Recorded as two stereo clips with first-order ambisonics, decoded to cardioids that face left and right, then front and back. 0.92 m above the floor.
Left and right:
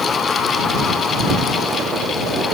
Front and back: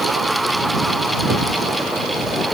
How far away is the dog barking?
No dog barking in this recording.